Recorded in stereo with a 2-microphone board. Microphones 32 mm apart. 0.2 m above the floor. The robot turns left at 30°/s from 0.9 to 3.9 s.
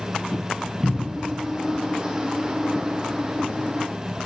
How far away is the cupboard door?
About 0.6 m.